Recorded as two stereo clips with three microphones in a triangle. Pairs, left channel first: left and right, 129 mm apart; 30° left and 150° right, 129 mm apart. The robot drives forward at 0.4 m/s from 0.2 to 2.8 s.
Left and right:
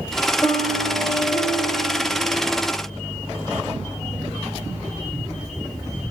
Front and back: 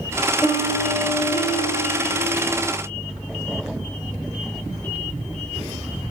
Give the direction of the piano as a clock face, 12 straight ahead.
11 o'clock.